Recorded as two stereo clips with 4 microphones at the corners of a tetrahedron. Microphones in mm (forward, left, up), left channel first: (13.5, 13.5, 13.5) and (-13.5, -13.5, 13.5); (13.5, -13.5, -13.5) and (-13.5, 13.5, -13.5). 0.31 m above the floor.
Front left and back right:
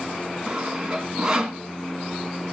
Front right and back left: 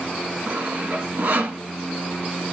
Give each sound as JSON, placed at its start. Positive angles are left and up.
{"t": 0.5, "sound": "sawing", "azimuth_deg": 155, "distance_m": 2.0}